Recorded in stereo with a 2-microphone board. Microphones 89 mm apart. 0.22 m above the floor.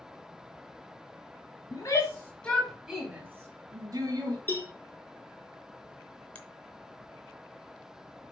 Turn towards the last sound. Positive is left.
turn(degrees=15)  # may be behind; listen again after turning